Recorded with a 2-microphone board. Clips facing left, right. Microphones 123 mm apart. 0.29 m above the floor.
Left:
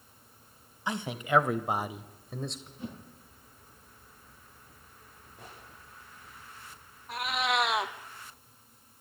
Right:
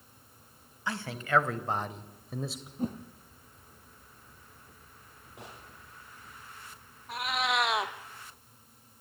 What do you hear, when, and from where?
0.9 s a man speaking: 20° left (ahead or behind), 1.5 m; by 2.7 s 5° right (ahead or behind), 1.1 m
2.8 s a whoosh: 45° right (ahead or behind), 2.5 m
5.4 s a gunshot: 80° right, 9.5 m
7.1 s a cat meowing: centre (ahead or behind), 1.2 m